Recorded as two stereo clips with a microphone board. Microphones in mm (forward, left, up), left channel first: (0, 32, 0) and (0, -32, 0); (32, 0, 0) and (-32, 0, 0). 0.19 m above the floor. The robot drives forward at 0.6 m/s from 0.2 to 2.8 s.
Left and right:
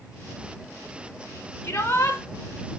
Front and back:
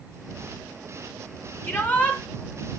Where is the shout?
45° left, 1.7 m; by 2.2 s 55° left, 1.5 m.